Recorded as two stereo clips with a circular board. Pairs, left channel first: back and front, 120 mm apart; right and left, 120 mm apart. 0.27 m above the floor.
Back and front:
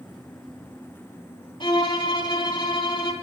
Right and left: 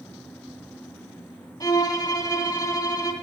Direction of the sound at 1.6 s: 140° right.